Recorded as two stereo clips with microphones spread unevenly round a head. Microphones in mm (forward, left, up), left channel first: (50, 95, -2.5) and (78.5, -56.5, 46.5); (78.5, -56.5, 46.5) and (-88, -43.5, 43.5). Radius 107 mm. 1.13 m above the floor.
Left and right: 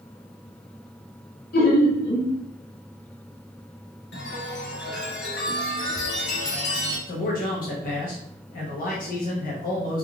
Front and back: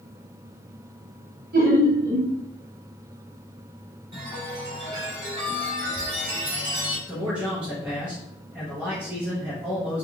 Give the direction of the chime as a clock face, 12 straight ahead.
8 o'clock.